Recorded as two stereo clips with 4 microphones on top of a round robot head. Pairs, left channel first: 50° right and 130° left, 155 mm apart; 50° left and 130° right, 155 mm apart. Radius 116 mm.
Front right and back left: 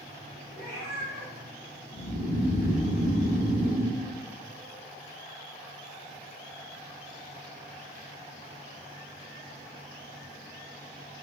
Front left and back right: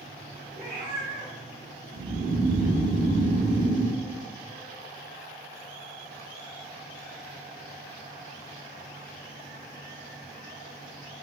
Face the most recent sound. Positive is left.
turn(degrees=-75)